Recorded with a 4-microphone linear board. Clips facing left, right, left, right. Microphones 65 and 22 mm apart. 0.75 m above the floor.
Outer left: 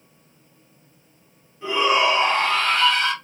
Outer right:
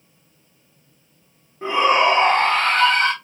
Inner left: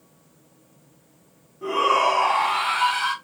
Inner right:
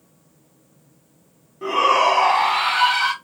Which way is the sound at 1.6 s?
45° right (ahead or behind).